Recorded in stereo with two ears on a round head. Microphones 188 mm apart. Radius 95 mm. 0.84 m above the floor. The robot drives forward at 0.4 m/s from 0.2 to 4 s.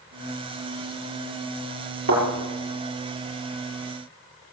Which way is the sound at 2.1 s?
85° right.